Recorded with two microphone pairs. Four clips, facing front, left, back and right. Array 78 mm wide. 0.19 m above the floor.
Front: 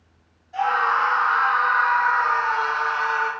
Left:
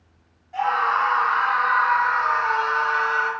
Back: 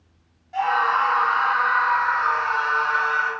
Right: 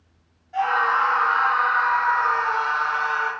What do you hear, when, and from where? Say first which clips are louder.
0.5 s a scream: right 1 dB, even; 175° left, 1.4 m; by 3.3 s 125° left, 2.5 m